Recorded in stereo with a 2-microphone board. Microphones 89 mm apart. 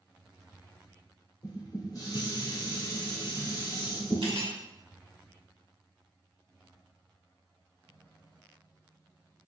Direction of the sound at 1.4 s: 40° left (ahead or behind).